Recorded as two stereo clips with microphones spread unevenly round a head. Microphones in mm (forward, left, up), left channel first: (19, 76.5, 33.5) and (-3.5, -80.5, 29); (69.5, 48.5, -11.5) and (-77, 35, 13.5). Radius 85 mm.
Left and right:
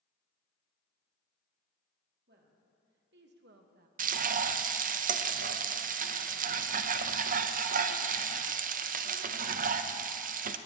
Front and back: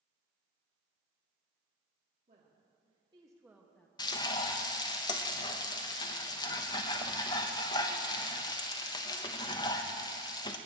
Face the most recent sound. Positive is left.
turn(degrees=-60)